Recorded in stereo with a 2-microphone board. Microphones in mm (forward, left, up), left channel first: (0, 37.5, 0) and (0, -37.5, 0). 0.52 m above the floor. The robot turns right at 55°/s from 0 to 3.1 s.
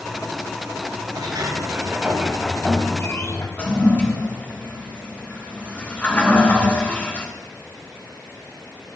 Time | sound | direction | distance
1.1 | a sliding door | 70° right | 1.8 m
3.6 | a toilet flushing | 20° left (ahead or behind) | 3 m